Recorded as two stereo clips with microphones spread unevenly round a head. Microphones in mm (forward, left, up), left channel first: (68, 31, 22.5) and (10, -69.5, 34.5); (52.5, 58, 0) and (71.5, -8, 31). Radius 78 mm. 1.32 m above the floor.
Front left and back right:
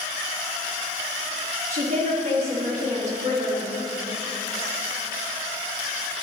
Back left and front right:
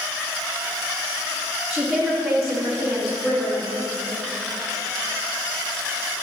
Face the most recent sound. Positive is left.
turn(degrees=-165)